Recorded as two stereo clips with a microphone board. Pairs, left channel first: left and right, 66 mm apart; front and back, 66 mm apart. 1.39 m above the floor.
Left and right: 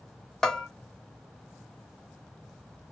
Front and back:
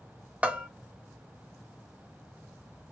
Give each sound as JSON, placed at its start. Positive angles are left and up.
{"t": 0.4, "sound": "a bell", "azimuth_deg": 155, "distance_m": 0.7}